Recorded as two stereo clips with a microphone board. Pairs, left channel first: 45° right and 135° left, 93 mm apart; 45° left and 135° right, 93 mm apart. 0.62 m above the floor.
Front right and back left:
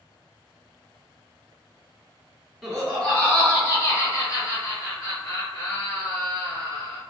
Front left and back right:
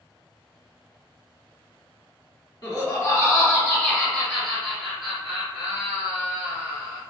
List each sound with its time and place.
2.6 s laughter: 45° left, 1.5 m; by 7.0 s 60° right, 3 m